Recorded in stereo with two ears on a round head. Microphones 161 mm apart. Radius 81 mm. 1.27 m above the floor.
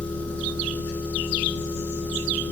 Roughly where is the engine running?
Centre.